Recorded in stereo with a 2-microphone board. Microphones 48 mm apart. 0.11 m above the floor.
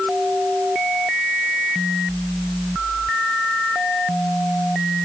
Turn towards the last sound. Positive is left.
No sound to turn to.